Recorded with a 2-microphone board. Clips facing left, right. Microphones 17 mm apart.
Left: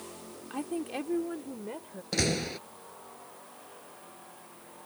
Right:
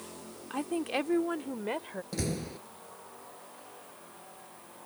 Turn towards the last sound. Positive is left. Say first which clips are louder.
# left 7 dB
turn(degrees=45)  # may be behind; listen again after turning